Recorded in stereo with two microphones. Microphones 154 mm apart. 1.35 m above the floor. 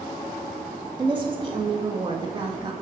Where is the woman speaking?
30° right (ahead or behind), 1.6 m.